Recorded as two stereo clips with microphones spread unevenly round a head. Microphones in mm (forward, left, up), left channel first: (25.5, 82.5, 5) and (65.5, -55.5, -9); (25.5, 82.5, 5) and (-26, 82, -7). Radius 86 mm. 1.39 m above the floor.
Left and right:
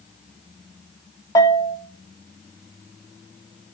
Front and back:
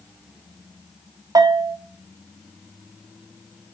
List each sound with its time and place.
1.4 s a bell: 175° left, 0.8 m